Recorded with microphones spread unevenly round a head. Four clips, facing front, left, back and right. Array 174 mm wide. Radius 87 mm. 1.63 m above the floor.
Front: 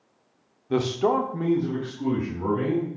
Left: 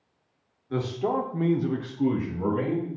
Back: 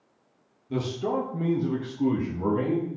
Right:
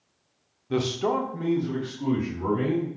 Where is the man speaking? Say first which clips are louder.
Right 2 dB, front 6 dB; 35° right, 0.7 m; by 2.9 s 105° left, 1.5 m.